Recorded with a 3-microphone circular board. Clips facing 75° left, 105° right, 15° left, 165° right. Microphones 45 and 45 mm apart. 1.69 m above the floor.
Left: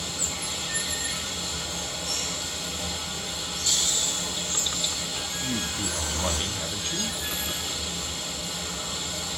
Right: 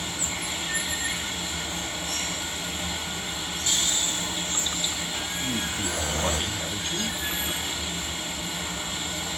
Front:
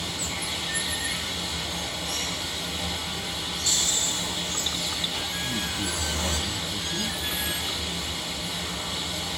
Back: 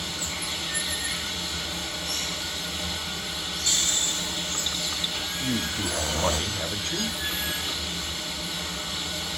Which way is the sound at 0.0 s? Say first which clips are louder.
Right 2 dB, front 1 dB; 70° right.